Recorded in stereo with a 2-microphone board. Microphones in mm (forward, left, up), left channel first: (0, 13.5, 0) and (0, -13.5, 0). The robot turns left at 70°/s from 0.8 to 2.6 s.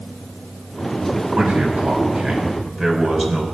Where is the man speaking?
90° right, 4.5 m; by 3.4 s 175° right, 4.5 m.